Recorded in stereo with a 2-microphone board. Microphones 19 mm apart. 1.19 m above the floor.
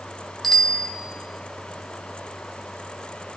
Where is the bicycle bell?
15° left (ahead or behind), 3 m.